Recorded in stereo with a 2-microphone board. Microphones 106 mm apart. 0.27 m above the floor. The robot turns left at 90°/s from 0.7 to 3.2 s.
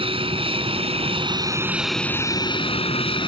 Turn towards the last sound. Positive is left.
turn(degrees=65)